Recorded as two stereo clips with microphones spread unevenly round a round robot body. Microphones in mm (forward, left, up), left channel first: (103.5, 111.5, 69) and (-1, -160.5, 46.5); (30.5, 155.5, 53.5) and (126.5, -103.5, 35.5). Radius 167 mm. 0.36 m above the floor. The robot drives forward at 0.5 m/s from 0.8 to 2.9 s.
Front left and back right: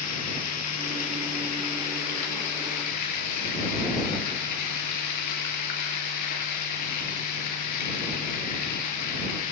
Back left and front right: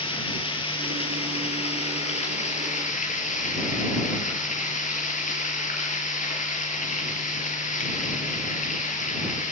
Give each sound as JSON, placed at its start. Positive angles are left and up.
{"t": 0.0, "sound": "running water", "azimuth_deg": 40, "distance_m": 6.0}